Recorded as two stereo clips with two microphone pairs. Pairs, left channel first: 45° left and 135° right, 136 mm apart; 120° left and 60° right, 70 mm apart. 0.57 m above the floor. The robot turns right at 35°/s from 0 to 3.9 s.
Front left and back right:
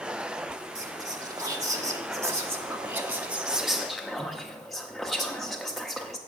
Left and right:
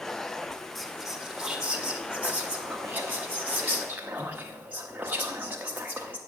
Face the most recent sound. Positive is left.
turn(degrees=-40)